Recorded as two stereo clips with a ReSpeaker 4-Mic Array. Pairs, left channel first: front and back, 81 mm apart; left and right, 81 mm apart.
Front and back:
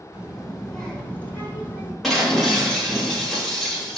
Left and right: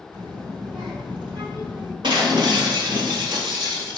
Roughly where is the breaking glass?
Right.